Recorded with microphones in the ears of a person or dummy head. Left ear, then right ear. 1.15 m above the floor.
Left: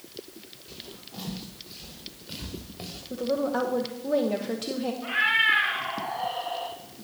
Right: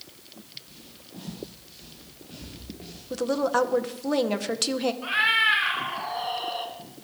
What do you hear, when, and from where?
0.7 s footsteps: 45° left (ahead or behind), 6.5 m; by 3.0 s 60° left (ahead or behind), 5 m
3.1 s a woman speaking: 45° right (ahead or behind), 0.9 m
5.0 s a cat meowing: 40° right (ahead or behind), 2.5 m